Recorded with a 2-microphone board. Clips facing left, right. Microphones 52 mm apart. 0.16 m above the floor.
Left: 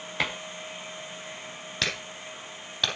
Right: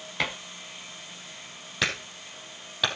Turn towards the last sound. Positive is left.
turn(degrees=-10)  # may be behind; listen again after turning